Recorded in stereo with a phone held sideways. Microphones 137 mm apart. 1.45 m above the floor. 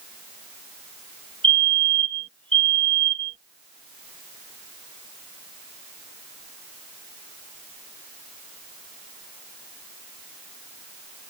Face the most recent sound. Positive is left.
turn(degrees=75)  # may be behind; listen again after turning